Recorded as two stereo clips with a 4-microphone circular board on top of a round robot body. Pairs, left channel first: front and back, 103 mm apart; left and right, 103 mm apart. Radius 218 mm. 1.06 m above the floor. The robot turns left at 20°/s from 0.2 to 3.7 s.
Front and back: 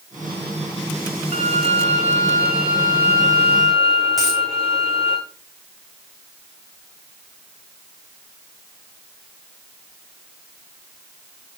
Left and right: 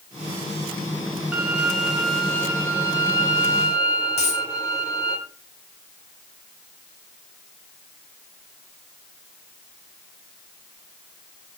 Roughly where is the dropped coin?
Left.